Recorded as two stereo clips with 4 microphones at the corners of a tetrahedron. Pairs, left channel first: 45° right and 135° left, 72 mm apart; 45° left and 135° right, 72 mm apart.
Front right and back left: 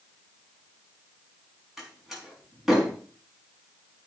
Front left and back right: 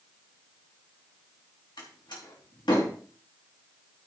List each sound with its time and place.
1.8 s a door slam: 50° left, 3.5 m